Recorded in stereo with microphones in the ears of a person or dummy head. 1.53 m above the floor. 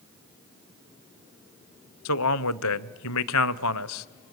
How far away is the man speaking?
About 0.8 m.